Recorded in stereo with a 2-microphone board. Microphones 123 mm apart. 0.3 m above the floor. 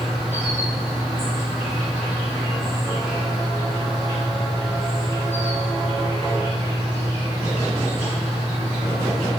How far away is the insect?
About 1.9 m.